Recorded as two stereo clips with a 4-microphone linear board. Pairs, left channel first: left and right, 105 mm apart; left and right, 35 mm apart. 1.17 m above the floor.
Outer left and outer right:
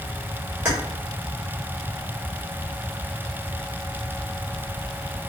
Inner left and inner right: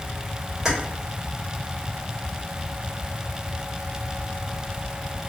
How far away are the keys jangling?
About 1.6 m.